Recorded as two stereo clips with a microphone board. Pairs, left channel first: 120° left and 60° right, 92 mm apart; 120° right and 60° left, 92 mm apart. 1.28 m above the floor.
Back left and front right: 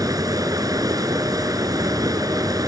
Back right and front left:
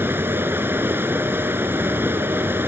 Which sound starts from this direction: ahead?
Running water, at 0.0 s.